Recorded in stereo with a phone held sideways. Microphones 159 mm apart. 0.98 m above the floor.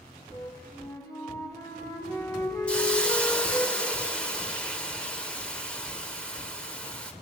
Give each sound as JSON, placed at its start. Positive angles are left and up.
{"t": 0.3, "sound": "a flute", "side_deg": 20, "distance_m": 3.5}
{"t": 2.7, "sound": "a hiss", "side_deg": 5, "distance_m": 1.2}